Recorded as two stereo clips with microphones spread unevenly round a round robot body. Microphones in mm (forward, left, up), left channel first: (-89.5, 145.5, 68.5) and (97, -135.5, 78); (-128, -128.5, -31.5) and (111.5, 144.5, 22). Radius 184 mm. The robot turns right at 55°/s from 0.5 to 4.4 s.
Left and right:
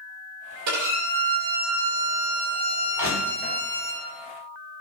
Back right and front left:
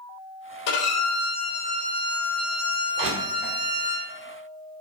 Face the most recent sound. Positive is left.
turn(degrees=60)